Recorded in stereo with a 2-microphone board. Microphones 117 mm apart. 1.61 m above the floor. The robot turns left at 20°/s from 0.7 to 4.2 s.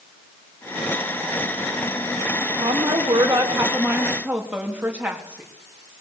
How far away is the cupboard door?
I don't hear a cupboard door.